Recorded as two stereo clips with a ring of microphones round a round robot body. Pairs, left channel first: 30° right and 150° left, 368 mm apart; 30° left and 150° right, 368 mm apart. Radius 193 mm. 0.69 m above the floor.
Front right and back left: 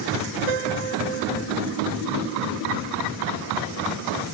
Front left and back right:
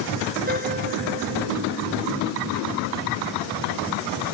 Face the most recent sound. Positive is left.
turn(degrees=140)